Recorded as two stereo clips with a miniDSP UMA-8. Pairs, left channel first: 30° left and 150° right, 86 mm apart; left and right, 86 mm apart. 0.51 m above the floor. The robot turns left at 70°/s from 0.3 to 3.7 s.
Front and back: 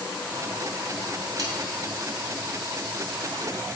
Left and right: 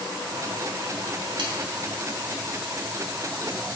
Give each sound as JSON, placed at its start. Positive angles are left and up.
{"t": 1.4, "sound": "sawing", "azimuth_deg": -110, "distance_m": 2.5}